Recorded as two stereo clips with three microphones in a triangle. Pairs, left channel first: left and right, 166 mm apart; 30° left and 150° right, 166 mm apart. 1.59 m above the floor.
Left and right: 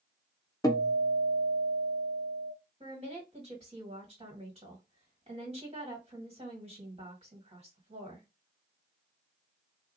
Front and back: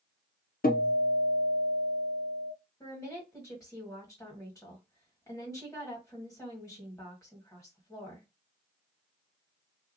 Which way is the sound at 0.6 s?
25° left.